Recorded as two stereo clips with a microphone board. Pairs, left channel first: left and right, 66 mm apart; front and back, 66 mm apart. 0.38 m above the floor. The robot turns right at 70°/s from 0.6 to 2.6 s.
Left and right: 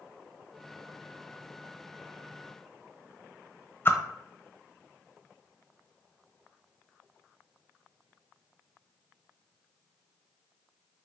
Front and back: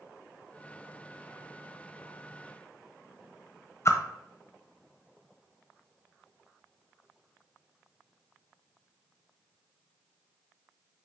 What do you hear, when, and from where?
3.9 s a whoosh: 40° left, 0.9 m